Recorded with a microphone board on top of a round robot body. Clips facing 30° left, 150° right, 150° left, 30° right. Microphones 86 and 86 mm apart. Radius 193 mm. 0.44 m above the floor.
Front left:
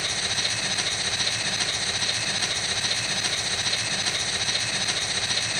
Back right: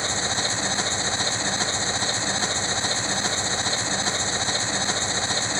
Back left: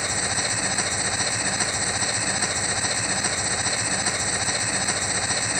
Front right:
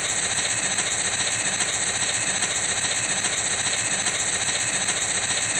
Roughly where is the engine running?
Behind right.